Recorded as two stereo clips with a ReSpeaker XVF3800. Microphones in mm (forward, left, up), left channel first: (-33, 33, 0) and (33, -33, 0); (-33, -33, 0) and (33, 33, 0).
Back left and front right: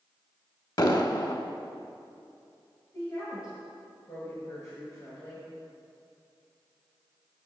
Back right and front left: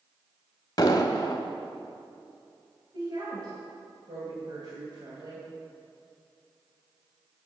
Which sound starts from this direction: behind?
An explosion, at 0.8 s.